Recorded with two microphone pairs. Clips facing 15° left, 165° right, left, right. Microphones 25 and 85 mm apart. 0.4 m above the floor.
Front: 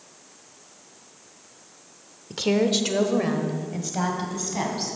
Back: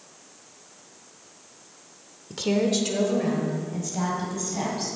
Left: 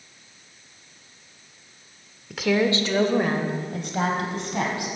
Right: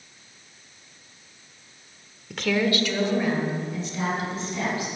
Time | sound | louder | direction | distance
2.3 | a woman speaking | front 2 dB, left 2 dB | straight ahead | 0.8 m